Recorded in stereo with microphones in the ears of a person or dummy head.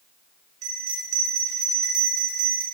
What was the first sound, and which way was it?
A bell, 45° right (ahead or behind).